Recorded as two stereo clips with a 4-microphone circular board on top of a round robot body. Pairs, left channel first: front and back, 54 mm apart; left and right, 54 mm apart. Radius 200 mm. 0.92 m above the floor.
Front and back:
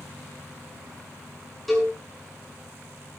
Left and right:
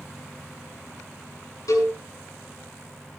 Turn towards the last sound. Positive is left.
turn(degrees=90)